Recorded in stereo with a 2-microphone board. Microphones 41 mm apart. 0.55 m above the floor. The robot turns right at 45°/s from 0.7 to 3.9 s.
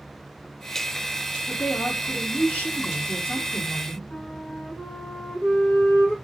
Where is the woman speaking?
45° left, 1.2 m; by 4.0 s 155° left, 1.2 m.